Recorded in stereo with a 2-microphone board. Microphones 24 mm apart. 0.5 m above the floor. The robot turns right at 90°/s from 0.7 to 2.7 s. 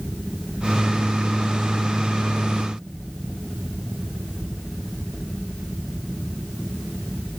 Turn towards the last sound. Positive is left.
No sound to turn to.